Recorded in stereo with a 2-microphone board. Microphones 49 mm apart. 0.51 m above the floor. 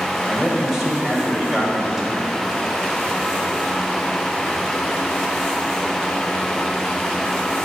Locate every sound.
0.3 s a man speaking: 10° right (ahead or behind), 2.5 m